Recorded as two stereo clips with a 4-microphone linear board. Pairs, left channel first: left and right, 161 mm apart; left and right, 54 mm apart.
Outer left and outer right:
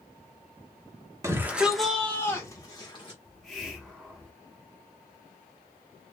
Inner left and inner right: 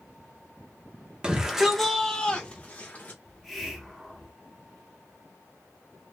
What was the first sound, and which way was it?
A shout, 20° right (ahead or behind).